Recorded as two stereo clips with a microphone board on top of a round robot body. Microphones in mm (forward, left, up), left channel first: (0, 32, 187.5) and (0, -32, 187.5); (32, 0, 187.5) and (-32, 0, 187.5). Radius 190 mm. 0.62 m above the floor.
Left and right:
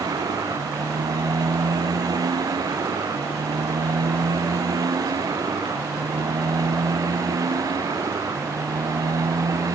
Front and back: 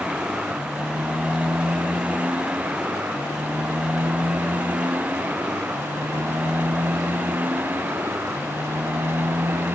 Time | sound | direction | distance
0.0 | a motorcycle | 105° right | ?